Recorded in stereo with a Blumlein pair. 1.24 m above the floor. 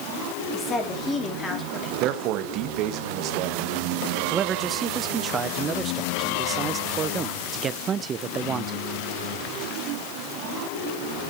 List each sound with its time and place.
0.5 s a woman speaking: 15° left, 3 m
2.0 s a man speaking: 40° right, 1.1 m
4.3 s a man speaking: 20° right, 0.6 m